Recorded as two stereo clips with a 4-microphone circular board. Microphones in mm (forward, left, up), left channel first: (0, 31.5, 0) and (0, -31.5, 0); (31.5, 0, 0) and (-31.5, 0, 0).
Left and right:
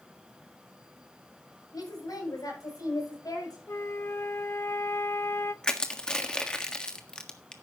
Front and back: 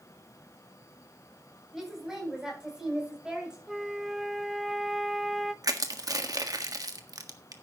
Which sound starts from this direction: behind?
Crushing, at 5.6 s.